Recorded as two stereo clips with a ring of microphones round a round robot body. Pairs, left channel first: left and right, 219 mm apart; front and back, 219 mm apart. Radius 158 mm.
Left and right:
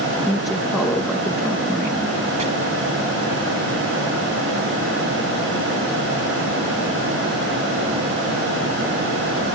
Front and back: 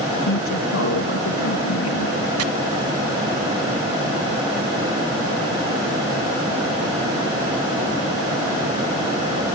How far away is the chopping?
About 1.0 m.